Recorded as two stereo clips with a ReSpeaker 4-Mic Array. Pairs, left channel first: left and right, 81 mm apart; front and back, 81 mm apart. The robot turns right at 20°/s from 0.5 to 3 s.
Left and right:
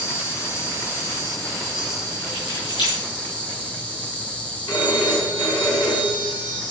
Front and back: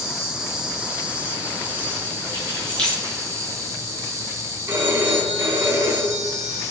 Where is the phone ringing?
120° left, 4 m.